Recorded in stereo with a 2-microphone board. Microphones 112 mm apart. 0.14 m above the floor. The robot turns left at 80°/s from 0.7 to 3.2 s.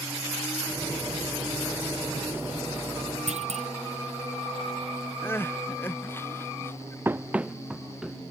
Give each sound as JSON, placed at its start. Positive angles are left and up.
{"t": 3.3, "sound": "a clunk", "side_deg": -85}
{"t": 5.2, "sound": "crying", "side_deg": 20}
{"t": 7.0, "sound": "running footsteps", "side_deg": -20}